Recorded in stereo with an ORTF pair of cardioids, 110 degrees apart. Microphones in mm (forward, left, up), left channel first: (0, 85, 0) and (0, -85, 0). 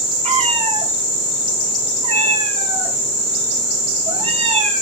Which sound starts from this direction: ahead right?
A cat meowing, at 0.2 s.